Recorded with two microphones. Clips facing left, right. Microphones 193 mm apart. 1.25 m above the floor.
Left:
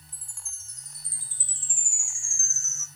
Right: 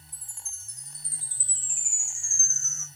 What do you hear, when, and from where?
0.1 s a chime: 60° right (ahead or behind), 1.4 m